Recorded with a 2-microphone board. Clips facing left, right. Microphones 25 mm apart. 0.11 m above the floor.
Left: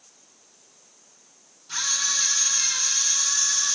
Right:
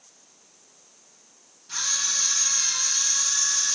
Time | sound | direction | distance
1.7 | a camera shutter | 10° left (ahead or behind) | 4 m